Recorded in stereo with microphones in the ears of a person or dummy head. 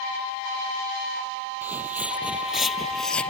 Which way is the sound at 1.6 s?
10° right (ahead or behind).